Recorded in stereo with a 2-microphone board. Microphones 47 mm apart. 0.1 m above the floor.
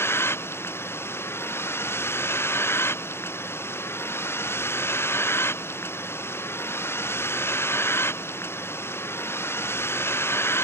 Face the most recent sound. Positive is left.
turn(degrees=60)  # may be behind; listen again after turning